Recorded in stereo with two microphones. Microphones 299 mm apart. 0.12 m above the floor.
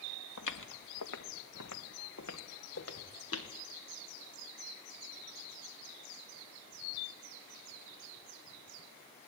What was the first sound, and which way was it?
Footsteps, 85° left.